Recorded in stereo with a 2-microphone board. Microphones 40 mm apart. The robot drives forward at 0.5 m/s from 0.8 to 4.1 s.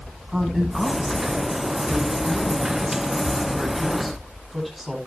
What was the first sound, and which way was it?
A woman speaking, centre (ahead or behind).